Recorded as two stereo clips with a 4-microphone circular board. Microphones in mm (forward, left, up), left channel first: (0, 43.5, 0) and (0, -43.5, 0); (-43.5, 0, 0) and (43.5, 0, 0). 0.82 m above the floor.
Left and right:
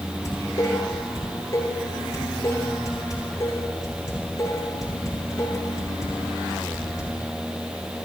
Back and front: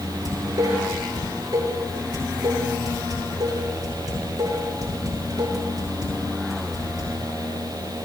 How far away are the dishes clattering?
About 8 m.